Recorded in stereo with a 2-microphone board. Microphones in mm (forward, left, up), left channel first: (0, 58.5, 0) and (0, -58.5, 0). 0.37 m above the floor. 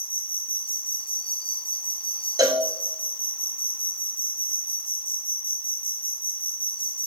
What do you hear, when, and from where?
0.0 s an insect: 50° left (ahead or behind), 1.2 m
2.4 s a cowbell: 30° right (ahead or behind), 1.2 m